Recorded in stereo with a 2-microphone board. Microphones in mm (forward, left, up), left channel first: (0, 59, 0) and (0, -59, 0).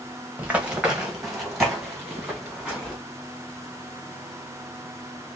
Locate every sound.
0.4 s running footsteps: 15° right (ahead or behind), 1.2 m; by 3.0 s 5° left (ahead or behind), 3 m